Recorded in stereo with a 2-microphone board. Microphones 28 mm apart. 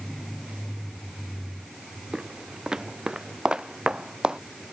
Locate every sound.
2.1 s footsteps: 20° right (ahead or behind); by 4.4 s 30° right (ahead or behind)